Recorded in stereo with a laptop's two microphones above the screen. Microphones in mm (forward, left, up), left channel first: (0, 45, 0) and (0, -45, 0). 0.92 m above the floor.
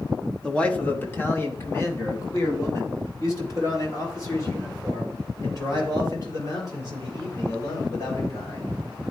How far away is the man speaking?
About 0.7 m.